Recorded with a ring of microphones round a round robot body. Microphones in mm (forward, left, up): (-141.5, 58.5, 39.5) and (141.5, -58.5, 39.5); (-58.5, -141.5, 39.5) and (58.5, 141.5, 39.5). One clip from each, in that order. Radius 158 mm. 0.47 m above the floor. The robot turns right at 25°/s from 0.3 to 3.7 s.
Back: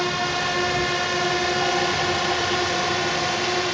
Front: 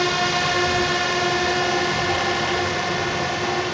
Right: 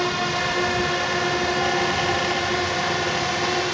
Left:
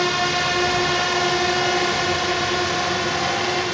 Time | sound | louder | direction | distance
0.0 | a drone | front 3 dB, left 3 dB | 50° left | ?